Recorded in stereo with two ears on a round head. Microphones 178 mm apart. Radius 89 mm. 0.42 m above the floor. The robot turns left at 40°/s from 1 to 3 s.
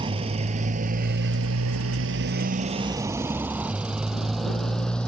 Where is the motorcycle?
25° right (ahead or behind); by 5.1 s 5° left (ahead or behind).